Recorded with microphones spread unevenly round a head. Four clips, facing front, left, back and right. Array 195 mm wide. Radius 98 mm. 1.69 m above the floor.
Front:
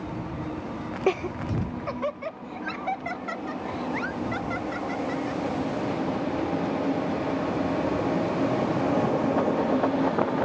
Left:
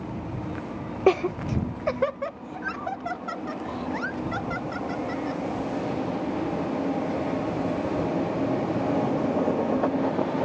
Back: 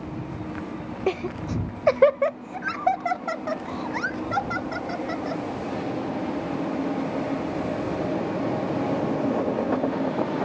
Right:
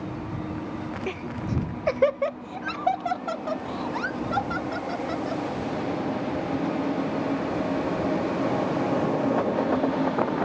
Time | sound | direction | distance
1.1 | laughter | 90° left | ?